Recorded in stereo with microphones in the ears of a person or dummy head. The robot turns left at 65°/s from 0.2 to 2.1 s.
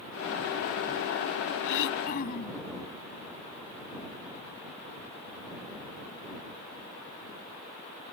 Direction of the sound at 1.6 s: 75° left (ahead or behind).